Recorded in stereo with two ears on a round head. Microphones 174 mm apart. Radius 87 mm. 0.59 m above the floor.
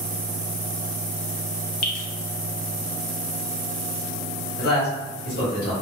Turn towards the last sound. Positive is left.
turn(degrees=50)  # may be behind; listen again after turning